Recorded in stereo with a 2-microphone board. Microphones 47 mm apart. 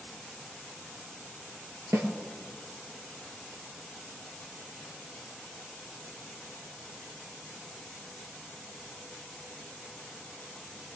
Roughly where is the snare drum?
Right.